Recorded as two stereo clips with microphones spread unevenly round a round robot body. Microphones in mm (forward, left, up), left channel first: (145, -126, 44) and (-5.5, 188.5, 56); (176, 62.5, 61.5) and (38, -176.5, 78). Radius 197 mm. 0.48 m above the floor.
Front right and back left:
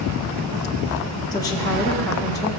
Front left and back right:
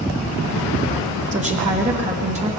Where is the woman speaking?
120° right, 1.2 m.